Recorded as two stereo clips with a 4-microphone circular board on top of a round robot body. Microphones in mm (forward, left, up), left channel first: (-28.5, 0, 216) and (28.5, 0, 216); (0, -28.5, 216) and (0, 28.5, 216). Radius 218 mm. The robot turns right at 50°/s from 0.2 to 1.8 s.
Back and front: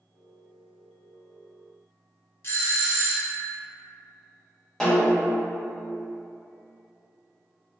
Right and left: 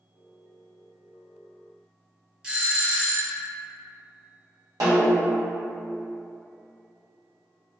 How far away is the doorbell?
About 1.2 m.